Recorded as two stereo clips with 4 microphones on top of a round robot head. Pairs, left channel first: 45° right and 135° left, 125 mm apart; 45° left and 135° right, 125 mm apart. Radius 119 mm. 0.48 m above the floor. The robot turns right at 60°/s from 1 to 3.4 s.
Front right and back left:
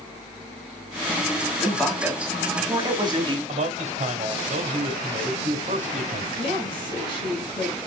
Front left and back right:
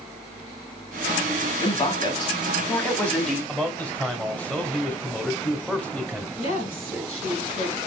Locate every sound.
1.6 s a man speaking: 25° left, 1.5 m; by 3.4 s 135° left, 1.5 m
3.5 s a man speaking: 125° left, 1.3 m
6.4 s a woman speaking: 10° left, 3.5 m